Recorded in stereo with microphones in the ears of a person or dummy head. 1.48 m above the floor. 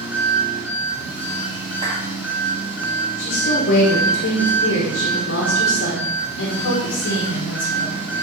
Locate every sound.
0.0 s an engine running: 10° right (ahead or behind), 1.4 m
1.8 s a clap: 30° right (ahead or behind), 2.5 m
3.2 s a woman speaking: 60° left (ahead or behind), 1.0 m